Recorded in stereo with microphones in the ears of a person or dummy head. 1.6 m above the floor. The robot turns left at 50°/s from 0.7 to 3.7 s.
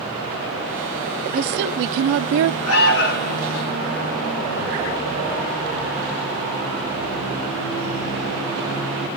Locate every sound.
1.3 s a woman speaking: 50° right, 0.6 m; by 2.6 s 115° right, 0.6 m
2.7 s an alarm: 80° left, 1.8 m; by 3.4 s 45° left, 1.8 m